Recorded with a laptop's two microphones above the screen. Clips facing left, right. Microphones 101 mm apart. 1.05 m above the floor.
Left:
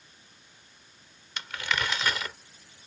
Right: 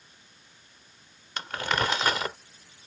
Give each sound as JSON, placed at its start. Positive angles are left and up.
{"t": 1.4, "sound": "crumpling", "side_deg": -40}